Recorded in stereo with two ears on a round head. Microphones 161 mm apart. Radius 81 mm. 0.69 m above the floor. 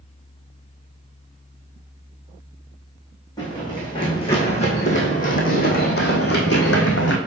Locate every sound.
3.4 s running footsteps: 25° left (ahead or behind), 3 m; by 7.2 s 70° left (ahead or behind), 2.5 m